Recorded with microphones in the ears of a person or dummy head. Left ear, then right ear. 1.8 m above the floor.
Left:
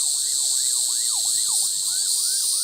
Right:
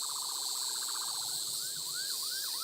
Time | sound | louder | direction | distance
0.0 | an insect | left 12 dB | 45° left (ahead or behind) | 1.0 m